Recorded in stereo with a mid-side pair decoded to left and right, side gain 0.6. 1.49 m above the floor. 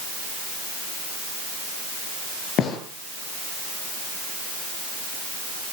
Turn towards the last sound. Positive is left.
turn(degrees=60)